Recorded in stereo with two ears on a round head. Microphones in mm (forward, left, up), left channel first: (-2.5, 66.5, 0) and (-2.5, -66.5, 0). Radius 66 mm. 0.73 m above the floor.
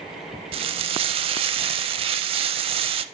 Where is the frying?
40° right (ahead or behind), 0.6 m.